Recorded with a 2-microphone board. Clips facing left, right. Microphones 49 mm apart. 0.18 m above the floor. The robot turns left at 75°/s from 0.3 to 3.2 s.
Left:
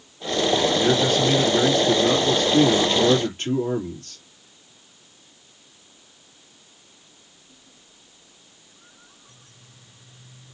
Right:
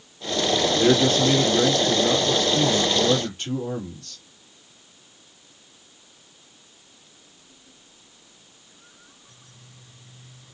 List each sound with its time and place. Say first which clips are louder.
0.7 s a man speaking: right 1 dB; 130° right, 3.5 m; by 4.2 s 45° left, 3.5 m